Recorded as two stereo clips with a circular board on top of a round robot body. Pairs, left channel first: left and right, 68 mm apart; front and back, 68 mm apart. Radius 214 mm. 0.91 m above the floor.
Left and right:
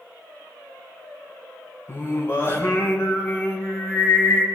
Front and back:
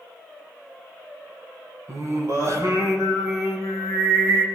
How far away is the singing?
About 4.5 m.